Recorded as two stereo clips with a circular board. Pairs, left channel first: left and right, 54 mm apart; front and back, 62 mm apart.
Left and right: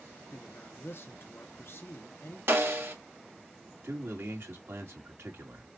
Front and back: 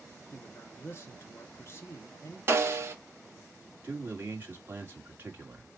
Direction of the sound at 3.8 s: 125° right.